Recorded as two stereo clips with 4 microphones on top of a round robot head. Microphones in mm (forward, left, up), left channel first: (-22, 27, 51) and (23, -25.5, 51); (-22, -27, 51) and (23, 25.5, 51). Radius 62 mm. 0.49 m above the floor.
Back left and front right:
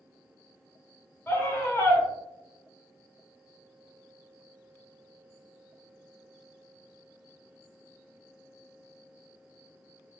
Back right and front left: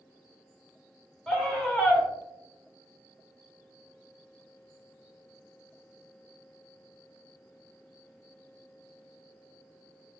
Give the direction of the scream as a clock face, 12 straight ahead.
7 o'clock.